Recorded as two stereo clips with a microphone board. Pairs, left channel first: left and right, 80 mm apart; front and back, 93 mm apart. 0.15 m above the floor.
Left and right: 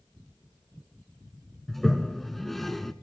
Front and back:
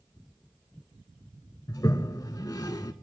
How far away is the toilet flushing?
About 0.6 m.